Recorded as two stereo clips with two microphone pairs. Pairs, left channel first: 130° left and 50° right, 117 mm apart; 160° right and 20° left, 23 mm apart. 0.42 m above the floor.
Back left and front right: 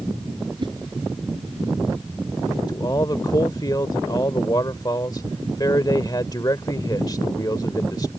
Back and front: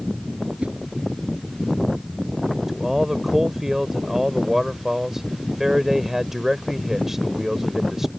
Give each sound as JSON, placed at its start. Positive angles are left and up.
{"t": 0.6, "sound": "a whoosh", "azimuth_deg": 0}
{"t": 2.7, "sound": "a man speaking", "azimuth_deg": 95}